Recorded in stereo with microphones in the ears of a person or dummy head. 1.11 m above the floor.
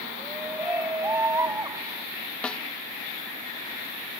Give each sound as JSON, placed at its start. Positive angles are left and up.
{"t": 0.2, "sound": "a shout", "side_deg": -10}
{"t": 2.4, "sound": "a snare drum", "side_deg": 10}